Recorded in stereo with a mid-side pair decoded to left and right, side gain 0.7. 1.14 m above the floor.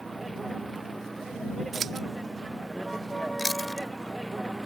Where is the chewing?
10° left.